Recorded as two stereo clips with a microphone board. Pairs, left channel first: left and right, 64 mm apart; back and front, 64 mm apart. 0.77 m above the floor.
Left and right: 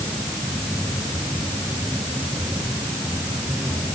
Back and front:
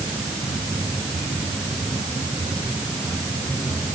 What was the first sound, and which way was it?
Only background noise.